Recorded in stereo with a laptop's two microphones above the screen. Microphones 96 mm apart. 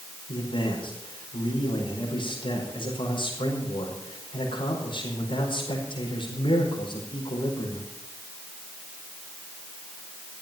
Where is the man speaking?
60° left (ahead or behind), 4.5 m.